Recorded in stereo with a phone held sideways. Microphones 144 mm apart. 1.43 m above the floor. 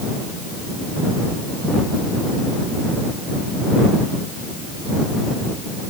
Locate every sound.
Only background noise.